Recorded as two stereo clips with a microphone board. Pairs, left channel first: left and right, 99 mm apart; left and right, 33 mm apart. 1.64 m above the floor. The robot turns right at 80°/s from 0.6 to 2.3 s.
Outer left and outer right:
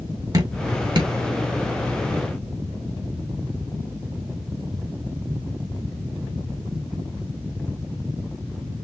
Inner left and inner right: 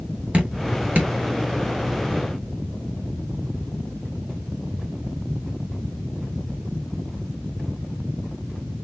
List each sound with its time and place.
0.3 s dripping: 40° right (ahead or behind), 2 m; by 1.1 s 50° right (ahead or behind), 2 m